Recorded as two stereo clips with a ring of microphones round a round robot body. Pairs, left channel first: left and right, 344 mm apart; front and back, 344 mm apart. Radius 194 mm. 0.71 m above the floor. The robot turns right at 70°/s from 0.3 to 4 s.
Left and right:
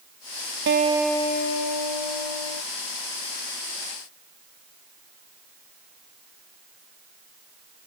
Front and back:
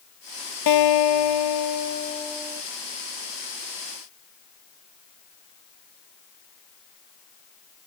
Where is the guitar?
30° right; by 2.6 s 110° left.